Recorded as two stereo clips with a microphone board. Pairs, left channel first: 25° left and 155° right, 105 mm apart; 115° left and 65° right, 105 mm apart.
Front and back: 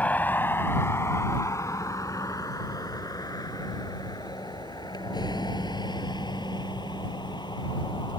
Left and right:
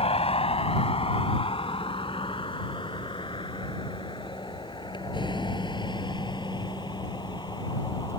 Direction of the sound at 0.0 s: 100° left.